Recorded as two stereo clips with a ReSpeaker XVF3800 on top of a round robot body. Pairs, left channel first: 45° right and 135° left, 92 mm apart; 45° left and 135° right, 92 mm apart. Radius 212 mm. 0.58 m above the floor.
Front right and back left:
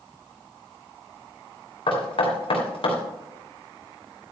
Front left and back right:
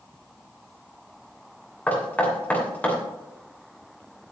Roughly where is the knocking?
Ahead right.